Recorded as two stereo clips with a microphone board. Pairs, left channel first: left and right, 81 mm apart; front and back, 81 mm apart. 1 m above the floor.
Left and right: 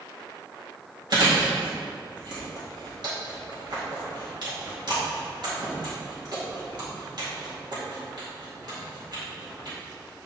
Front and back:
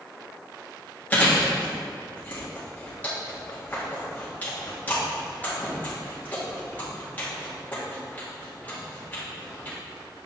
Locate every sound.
1.1 s chewing: 65° right, 2 m